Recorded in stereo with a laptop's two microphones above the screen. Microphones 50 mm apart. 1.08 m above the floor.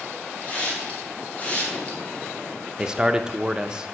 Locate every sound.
0.4 s a hiss: 30° left (ahead or behind), 1.2 m
2.8 s a man speaking: 15° right (ahead or behind), 0.6 m